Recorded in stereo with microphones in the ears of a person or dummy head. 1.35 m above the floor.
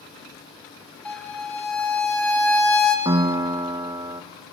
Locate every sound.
1.1 s a violin: 5° left (ahead or behind), 1.5 m
3.0 s a piano: 15° right (ahead or behind), 1.1 m